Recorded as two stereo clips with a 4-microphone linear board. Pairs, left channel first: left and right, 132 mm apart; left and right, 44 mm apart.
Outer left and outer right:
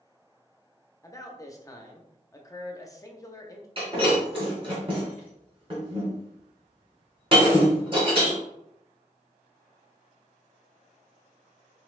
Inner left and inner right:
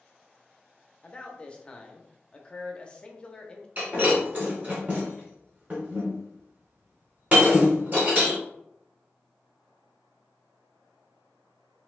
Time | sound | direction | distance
1.0 | a man speaking | 25° left (ahead or behind) | 0.7 m
3.8 | breaking glass | 40° right (ahead or behind) | 2 m